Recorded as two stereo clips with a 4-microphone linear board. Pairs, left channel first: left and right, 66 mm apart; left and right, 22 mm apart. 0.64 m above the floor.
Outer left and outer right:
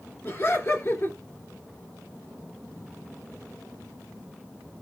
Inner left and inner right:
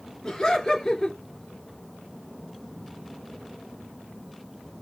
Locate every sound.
0.2 s laughter: 35° left (ahead or behind), 2.5 m